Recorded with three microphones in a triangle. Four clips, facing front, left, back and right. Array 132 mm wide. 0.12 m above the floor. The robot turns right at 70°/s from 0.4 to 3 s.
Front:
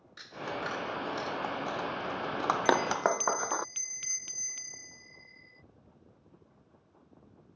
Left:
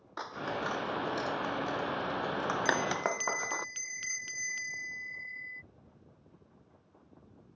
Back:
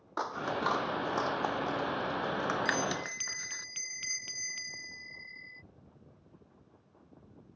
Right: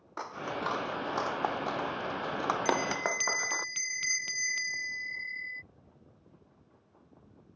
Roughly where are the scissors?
Behind.